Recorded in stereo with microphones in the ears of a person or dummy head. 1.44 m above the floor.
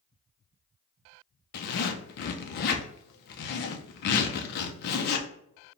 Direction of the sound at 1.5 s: 50° left (ahead or behind).